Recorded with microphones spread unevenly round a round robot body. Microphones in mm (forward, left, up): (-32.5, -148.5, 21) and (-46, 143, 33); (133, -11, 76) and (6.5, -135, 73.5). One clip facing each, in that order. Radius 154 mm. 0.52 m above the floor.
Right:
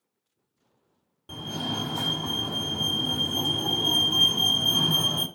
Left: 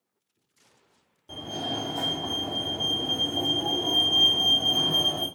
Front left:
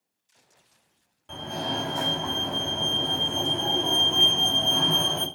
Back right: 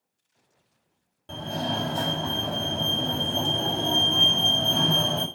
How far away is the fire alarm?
About 2 m.